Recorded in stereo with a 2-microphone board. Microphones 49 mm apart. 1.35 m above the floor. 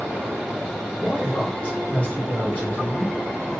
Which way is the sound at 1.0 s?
35° left (ahead or behind).